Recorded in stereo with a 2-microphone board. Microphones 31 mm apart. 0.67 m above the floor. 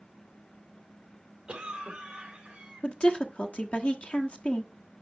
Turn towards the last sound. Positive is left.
turn(degrees=45)  # may be behind; listen again after turning